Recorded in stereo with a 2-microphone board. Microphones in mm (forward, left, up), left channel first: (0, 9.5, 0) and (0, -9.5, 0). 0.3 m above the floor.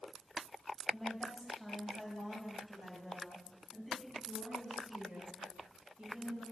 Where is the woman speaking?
15° left (ahead or behind), 1.5 m; by 6.4 s 40° right (ahead or behind), 3.5 m.